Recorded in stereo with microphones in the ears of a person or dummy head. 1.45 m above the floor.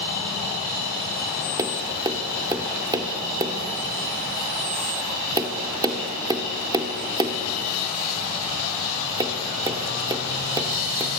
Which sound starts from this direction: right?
Tapping, at 1.6 s.